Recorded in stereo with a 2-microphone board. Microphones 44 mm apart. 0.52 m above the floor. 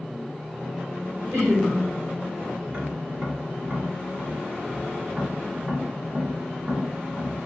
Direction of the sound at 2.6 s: 30° right (ahead or behind).